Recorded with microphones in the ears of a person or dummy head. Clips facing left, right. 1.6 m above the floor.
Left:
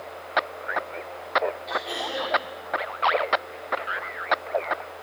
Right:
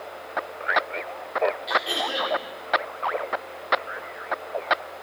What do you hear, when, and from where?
1.7 s throat clearing: 15° right (ahead or behind), 2.5 m